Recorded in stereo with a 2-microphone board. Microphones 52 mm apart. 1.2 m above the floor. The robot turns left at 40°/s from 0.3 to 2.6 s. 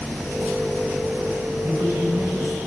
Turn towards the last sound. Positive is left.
turn(degrees=-120)